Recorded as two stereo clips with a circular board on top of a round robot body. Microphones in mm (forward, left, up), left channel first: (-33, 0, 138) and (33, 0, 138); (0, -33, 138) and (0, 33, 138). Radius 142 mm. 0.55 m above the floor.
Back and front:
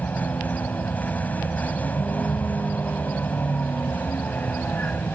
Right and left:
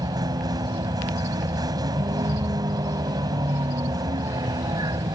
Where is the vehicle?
115° left.